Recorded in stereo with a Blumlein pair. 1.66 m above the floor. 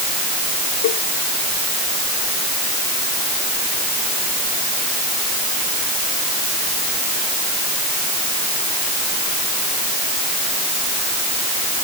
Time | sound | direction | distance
0.8 | a cowbell | 55° left | ?